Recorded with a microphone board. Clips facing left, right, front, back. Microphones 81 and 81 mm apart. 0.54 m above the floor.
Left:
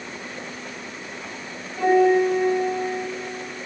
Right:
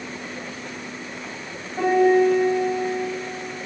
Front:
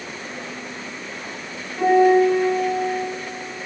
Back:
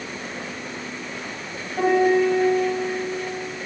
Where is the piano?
150° right, 3 m.